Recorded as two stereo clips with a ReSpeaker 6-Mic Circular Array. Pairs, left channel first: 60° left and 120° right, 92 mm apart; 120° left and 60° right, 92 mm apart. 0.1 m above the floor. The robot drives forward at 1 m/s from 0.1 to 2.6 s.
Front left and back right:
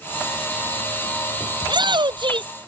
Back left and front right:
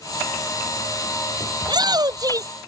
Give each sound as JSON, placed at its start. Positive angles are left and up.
{"t": 1.6, "sound": "a shout", "azimuth_deg": -90}